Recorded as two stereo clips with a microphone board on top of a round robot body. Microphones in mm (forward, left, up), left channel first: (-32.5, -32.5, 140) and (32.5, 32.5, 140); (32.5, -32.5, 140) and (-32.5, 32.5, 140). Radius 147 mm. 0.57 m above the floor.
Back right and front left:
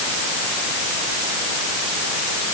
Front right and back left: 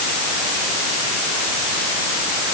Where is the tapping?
No tapping in this recording.